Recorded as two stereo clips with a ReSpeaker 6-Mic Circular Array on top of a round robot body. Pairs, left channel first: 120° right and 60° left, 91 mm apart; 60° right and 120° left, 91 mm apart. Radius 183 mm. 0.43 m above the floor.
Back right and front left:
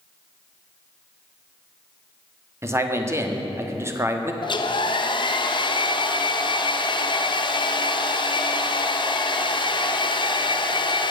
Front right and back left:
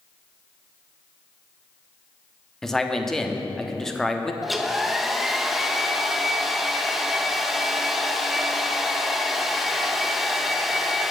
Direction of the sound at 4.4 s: 150° right.